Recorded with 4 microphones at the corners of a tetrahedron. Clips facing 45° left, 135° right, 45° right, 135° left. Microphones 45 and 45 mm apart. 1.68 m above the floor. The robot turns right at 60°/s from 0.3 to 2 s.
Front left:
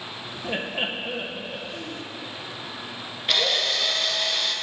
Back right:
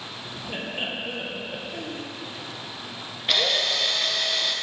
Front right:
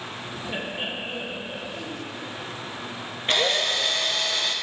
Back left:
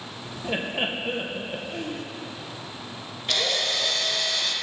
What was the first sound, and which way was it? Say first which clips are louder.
Laughter: front left 3 dB, back left 4 dB; 85° left.